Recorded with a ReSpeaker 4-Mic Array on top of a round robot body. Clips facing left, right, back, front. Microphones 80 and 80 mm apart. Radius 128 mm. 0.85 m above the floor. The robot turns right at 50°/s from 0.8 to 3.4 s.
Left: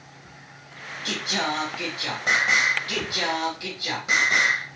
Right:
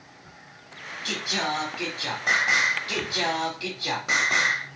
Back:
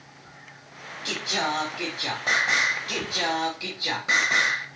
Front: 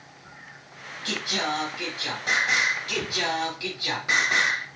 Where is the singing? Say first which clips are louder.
Left 1 dB, back 1 dB; 120° left, 0.6 m; by 4.7 s 120° right, 0.6 m.